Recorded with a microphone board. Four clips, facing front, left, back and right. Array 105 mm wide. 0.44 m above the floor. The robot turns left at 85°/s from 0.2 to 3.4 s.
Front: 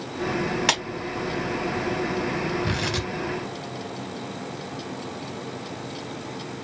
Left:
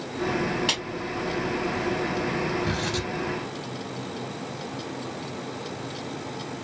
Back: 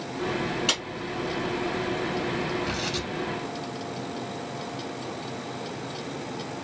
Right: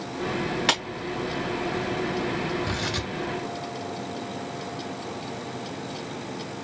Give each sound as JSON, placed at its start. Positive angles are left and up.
{"t": 0.7, "sound": "a clap", "azimuth_deg": -35, "distance_m": 2.5}
{"t": 2.6, "sound": "tearing paper", "azimuth_deg": -10, "distance_m": 2.5}